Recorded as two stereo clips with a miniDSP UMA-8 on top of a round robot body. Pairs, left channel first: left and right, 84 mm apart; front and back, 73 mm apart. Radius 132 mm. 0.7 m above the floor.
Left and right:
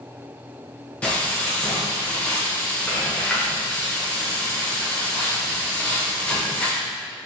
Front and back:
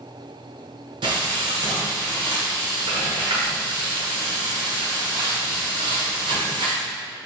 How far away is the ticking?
I don't hear ticking.